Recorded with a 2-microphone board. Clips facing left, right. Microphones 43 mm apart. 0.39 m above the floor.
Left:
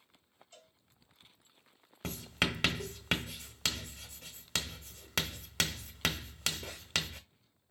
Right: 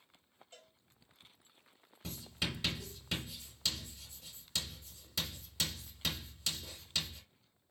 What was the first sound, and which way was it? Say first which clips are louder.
A cowbell: even; 45° right (ahead or behind).